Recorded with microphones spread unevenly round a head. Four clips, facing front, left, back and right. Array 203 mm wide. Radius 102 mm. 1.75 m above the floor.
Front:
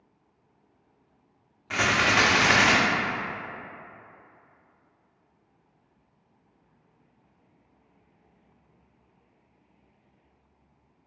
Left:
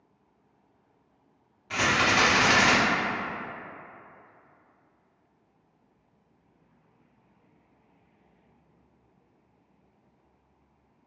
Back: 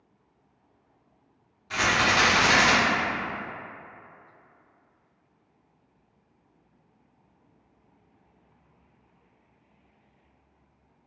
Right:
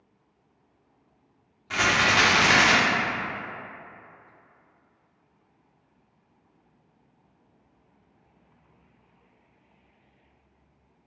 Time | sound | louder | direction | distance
1.7 | a rattle | right 1 dB, even | 20° right | 0.9 m